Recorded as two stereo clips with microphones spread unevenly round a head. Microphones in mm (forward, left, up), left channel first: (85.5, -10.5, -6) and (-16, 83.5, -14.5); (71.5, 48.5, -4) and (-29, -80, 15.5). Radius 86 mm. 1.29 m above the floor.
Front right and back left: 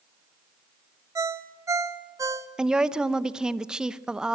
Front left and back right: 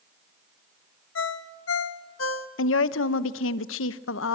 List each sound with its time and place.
1.1 s a ringtone: 70° left, 1.0 m
2.6 s a woman speaking: 50° left, 0.8 m